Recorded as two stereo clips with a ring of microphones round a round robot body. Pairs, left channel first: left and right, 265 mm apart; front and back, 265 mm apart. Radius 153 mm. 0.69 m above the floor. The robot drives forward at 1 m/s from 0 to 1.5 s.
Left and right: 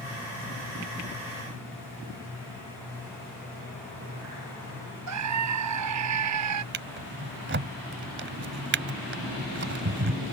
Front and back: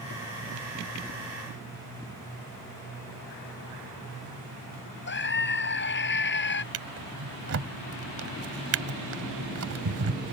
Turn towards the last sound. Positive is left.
turn(degrees=-140)